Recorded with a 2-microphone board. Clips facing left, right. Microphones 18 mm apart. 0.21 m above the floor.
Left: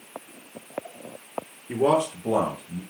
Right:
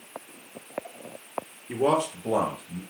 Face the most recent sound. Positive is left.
turn(degrees=0)  # may be behind; listen again after turning